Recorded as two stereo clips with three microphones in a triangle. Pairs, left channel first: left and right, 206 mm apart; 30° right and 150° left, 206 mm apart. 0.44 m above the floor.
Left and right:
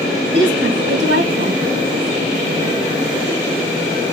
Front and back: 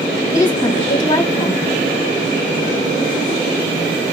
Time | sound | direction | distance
0.3 | a woman speaking | 100° right | 2 m